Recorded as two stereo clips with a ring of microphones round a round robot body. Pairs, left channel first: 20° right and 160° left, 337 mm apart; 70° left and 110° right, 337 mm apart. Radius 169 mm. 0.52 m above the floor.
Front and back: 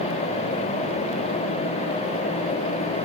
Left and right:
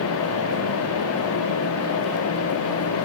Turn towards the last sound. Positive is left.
No sound to turn to.